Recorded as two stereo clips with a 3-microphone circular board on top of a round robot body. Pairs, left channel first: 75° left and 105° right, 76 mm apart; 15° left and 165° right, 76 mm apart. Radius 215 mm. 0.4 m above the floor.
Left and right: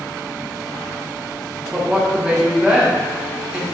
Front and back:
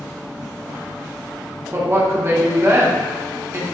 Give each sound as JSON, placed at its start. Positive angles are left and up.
{"t": 1.7, "sound": "a woman speaking", "azimuth_deg": -170, "distance_m": 0.9}